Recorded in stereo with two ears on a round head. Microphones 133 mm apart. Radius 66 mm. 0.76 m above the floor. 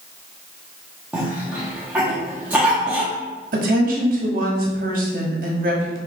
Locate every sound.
1.1 s a cough: 10° right (ahead or behind), 0.9 m
3.5 s a woman speaking: 60° right (ahead or behind), 1.3 m